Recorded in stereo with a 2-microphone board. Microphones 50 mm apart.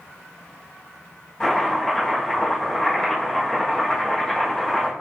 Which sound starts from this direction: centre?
Chopping, at 1.4 s.